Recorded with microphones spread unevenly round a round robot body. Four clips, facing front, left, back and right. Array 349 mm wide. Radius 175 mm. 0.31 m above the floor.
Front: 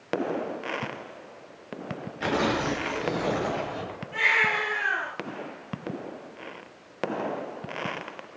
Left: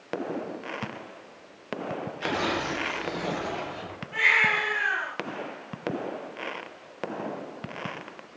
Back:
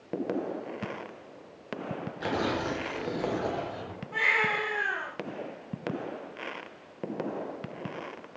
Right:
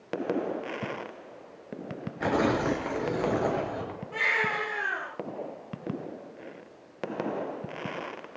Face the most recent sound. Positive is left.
turn(degrees=-105)